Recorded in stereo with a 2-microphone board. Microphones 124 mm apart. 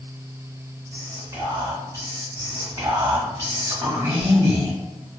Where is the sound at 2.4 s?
25° right (ahead or behind), 0.8 m.